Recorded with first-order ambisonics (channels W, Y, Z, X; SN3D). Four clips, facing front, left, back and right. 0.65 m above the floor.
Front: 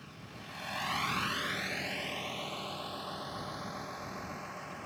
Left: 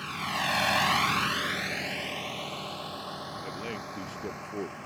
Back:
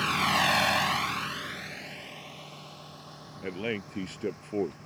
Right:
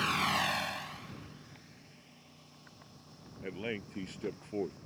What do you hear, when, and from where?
0.0 s a vehicle: 160° right; by 4.9 s 60° left
3.4 s a man speaking: straight behind